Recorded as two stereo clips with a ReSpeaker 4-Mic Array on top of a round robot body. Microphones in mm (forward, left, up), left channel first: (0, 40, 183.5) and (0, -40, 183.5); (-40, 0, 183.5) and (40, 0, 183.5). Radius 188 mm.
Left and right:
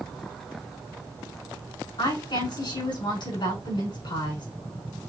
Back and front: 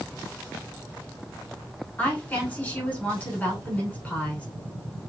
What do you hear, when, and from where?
2.0 s a woman speaking: 105° left, 4 m